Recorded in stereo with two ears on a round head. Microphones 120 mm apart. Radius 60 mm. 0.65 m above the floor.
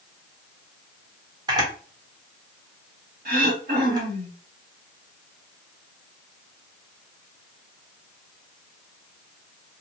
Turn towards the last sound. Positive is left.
turn(degrees=-70)  # may be behind; listen again after turning